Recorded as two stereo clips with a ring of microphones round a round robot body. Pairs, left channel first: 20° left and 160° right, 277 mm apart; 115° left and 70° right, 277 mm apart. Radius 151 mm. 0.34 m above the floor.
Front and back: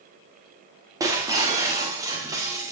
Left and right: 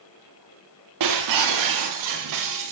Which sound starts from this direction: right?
Breaking glass, at 1.0 s.